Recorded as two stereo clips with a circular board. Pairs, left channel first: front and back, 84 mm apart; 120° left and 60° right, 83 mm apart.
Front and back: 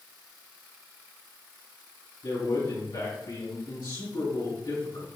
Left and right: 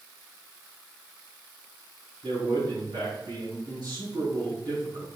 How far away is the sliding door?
I don't hear a sliding door.